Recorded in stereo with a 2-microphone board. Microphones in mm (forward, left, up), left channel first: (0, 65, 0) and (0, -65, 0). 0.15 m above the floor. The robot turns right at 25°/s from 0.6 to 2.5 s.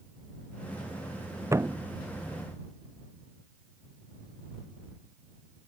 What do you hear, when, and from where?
1.5 s a thud: 20° right (ahead or behind); by 1.8 s 15° right (ahead or behind)